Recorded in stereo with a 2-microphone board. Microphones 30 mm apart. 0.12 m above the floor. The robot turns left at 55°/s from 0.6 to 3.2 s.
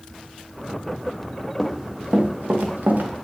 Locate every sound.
1.6 s running footsteps: 5° right (ahead or behind), 1.8 m; by 3.1 s 70° right (ahead or behind), 2.5 m